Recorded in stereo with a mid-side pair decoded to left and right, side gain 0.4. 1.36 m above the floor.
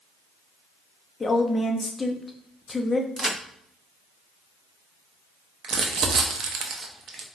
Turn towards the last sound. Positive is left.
turn(degrees=-60)